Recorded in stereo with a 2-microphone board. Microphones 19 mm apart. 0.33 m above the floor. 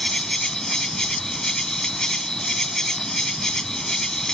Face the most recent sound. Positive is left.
turn(degrees=35)  # may be behind; listen again after turning